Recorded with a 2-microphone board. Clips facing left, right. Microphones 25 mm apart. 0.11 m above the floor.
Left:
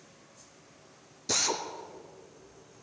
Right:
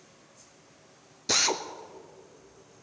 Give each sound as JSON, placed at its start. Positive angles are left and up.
{"t": 1.3, "sound": "a drill", "side_deg": -30, "distance_m": 0.7}